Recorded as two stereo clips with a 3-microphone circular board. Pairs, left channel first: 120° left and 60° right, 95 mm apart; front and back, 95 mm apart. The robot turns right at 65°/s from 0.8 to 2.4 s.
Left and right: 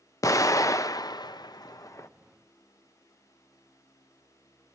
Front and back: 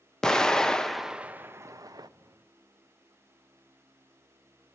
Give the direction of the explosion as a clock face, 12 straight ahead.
9 o'clock.